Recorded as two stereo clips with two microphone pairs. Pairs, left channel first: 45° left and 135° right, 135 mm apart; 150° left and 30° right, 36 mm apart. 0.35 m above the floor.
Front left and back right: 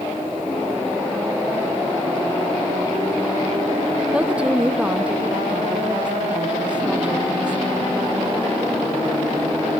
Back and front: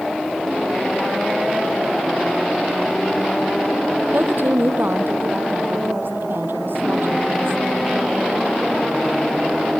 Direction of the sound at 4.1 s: 55° right.